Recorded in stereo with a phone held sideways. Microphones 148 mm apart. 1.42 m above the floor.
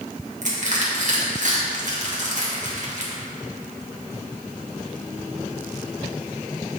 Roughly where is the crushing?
Right.